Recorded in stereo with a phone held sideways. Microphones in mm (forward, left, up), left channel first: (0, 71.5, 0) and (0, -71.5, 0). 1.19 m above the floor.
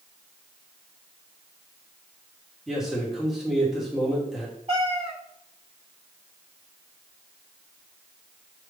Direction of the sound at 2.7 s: 5° right (ahead or behind).